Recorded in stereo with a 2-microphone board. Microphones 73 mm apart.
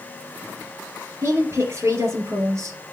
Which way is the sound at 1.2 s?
45° right (ahead or behind).